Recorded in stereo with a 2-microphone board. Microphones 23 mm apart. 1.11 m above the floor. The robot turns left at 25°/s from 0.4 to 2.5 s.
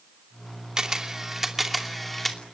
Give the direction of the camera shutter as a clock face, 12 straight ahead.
5 o'clock.